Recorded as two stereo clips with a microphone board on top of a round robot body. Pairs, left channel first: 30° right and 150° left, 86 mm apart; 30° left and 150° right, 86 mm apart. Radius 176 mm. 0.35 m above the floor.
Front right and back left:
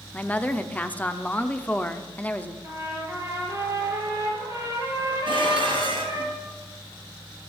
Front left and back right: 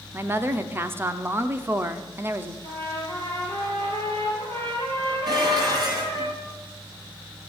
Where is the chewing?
I don't hear chewing.